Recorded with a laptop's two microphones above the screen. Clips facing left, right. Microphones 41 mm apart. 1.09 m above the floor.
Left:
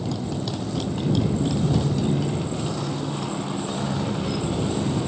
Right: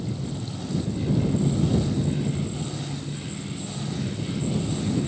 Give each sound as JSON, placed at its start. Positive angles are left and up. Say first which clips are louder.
{"t": 0.0, "sound": "a motorcycle", "louder": "left 4 dB", "side_deg": 85}